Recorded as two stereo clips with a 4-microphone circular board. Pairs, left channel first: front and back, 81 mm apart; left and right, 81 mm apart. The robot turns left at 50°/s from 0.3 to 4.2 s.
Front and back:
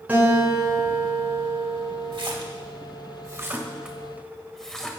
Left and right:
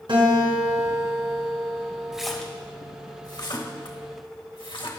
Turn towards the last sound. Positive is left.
turn(degrees=85)